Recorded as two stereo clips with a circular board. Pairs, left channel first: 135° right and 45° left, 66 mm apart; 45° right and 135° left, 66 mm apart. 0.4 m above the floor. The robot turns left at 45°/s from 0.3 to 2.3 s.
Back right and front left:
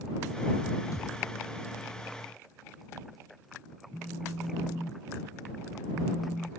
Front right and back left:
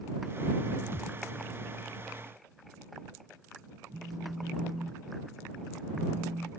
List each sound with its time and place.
0.9 s a thud: 170° right; by 1.2 s straight behind
3.9 s a phone buzzing: 150° left